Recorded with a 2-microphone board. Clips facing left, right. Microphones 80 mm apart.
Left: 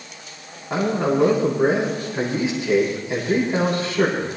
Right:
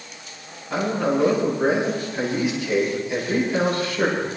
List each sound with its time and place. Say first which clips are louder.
0.7 s a man speaking: left 2 dB; 30° left (ahead or behind), 8.5 m